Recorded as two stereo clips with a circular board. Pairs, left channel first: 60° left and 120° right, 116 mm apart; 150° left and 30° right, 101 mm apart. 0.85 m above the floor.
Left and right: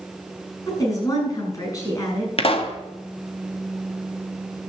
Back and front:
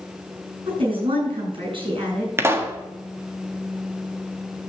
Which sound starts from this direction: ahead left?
A pop, at 2.4 s.